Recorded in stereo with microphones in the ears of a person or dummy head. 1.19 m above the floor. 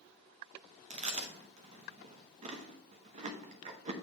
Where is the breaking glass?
No breaking glass in this recording.